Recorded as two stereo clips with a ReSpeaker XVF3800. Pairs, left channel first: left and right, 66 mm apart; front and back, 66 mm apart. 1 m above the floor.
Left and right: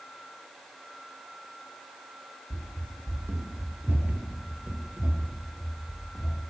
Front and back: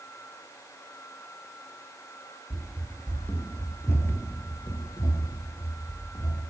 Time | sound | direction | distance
2.5 | running footsteps | 95° right | 1.2 m